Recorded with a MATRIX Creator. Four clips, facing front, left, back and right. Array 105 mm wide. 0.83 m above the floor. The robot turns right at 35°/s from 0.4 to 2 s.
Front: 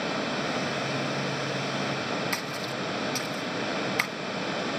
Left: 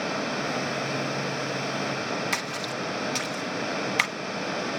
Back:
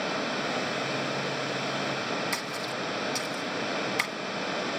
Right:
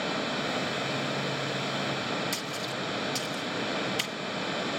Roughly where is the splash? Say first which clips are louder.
Left 3 dB, front 1 dB; left.